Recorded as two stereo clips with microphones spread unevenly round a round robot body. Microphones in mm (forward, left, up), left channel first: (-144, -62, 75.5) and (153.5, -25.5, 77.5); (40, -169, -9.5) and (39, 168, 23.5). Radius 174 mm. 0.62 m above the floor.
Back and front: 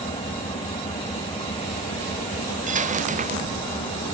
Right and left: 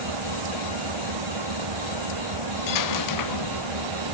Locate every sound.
0.0 s an engine running: 110° left
2.7 s a dropped coin: 60° right